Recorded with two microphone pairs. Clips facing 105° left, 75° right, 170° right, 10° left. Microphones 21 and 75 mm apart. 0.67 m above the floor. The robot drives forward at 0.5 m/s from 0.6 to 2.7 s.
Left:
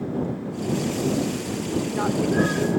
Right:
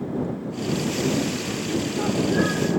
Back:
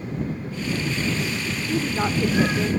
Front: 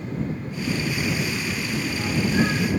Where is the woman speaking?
165° left, 1.8 m; by 2.7 s 170° left, 2 m.